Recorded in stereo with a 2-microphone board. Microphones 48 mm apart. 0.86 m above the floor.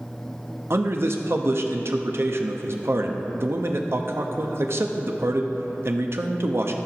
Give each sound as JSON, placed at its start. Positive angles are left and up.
{"t": 0.7, "sound": "a man speaking", "side_deg": -55, "distance_m": 0.7}